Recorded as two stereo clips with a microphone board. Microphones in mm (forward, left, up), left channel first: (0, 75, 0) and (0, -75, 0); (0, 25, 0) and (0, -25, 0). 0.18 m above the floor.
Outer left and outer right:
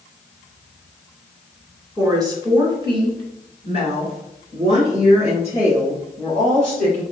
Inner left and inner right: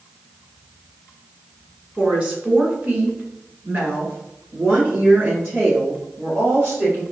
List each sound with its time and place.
2.0 s a woman speaking: 20° right (ahead or behind), 1.5 m; by 7.0 s 50° right (ahead or behind), 3.5 m